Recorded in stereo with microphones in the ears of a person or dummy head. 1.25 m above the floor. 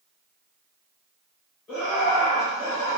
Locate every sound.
1.7 s laughter: 10° left (ahead or behind), 1.3 m